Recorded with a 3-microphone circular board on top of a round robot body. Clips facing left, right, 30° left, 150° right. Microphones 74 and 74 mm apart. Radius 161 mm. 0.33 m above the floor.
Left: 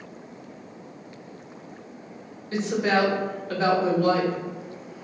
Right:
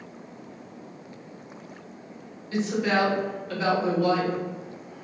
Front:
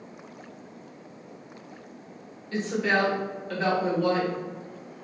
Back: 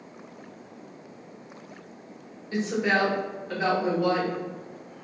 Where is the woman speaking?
135° left, 2.0 m.